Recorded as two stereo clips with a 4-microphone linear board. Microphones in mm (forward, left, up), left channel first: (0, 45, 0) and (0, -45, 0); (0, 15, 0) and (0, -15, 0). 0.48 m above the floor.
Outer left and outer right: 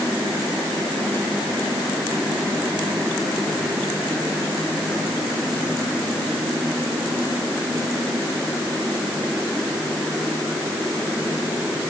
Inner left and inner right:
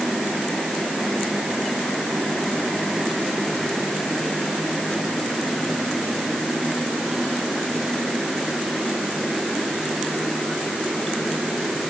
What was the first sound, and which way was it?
Only background noise.